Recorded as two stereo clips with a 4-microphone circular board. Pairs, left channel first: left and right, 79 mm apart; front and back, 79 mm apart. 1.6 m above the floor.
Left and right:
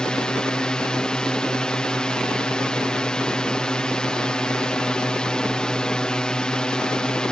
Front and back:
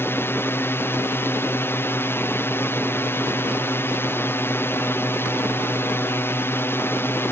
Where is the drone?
20° left.